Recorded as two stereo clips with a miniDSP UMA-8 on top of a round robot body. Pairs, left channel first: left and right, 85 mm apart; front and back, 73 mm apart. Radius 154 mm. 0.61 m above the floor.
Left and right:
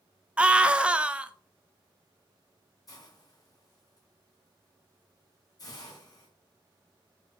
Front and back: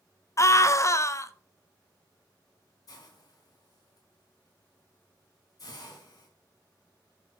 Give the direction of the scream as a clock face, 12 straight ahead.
1 o'clock.